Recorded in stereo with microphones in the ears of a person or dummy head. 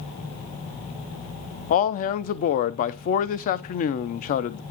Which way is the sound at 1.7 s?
50° left (ahead or behind).